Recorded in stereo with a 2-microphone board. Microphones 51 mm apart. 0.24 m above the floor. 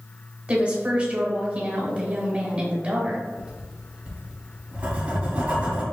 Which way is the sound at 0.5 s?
25° right (ahead or behind).